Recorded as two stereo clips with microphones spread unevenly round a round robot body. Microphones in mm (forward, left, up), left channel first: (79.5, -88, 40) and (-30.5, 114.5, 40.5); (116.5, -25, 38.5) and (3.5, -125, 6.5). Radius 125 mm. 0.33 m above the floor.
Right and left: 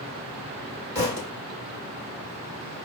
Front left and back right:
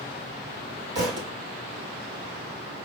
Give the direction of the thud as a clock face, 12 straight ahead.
5 o'clock.